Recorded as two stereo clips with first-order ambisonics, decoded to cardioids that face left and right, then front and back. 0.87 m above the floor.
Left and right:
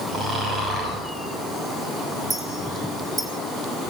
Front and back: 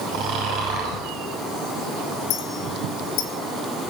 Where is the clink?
25° right, 1.8 m.